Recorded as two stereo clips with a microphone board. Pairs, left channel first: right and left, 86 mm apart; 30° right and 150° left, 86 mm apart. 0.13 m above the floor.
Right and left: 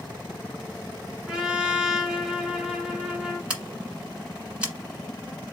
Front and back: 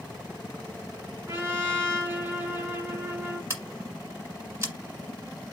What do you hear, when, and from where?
1.3 s a trumpet: 165° left, 1.4 m
3.5 s scissors: 155° left, 1.5 m